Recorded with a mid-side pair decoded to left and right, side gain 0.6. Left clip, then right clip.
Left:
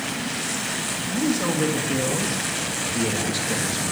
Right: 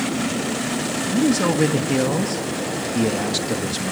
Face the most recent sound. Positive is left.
turn(degrees=-35)